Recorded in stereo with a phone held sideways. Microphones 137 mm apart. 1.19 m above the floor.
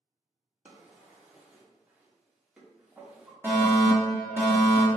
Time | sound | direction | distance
0.7 | a drawer | 10° right (ahead or behind) | 0.7 m
3.4 | a fire alarm | 15° right (ahead or behind) | 1.0 m